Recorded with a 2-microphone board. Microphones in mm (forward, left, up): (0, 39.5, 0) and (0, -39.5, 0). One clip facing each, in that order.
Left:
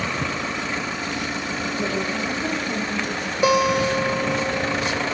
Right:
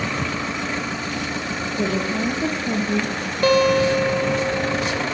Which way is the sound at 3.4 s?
10° left (ahead or behind).